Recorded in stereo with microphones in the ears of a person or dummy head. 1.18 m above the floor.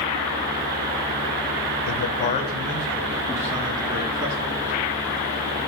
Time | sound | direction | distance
1.9 | a man speaking | 60° left (ahead or behind) | 0.6 m